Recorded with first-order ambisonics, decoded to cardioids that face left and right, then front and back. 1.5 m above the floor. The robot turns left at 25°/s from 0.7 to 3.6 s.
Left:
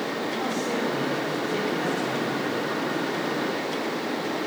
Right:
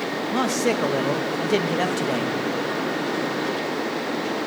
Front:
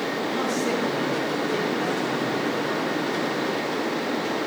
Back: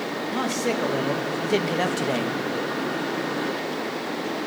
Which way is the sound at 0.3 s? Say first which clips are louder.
Right 9 dB, back 2 dB; 105° right.